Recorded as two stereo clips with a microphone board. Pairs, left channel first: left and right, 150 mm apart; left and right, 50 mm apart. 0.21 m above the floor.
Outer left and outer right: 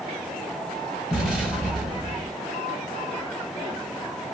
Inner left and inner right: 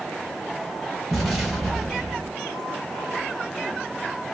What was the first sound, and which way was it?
An explosion, centre (ahead or behind).